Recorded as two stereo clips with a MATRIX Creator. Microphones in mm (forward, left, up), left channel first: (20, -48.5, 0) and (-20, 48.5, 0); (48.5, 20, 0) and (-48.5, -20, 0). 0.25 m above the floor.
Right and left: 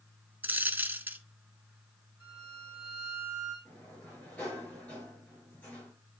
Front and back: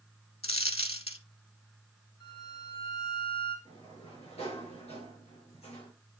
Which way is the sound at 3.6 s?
5° left.